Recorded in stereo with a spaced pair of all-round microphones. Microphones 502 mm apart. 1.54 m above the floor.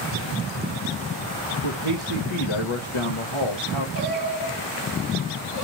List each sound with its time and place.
1.6 s a man speaking: 65° left (ahead or behind), 1.1 m
4.0 s singing: 40° left (ahead or behind), 2 m